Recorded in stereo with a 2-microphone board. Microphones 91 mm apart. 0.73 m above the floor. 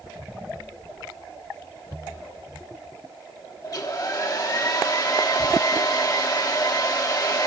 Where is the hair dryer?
40° left (ahead or behind), 1.1 m.